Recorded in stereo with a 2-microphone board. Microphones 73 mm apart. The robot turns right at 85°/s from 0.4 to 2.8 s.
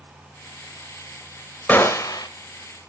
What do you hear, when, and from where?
1.7 s a gunshot: 25° left, 0.8 m; by 2.3 s 75° left, 0.8 m